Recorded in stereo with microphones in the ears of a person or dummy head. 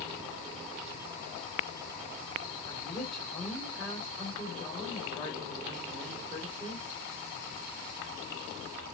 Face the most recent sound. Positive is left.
turn(degrees=0)  # may be behind; listen again after turning